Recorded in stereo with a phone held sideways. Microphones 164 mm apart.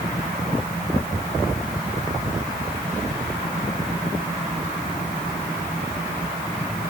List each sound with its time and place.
Only background noise.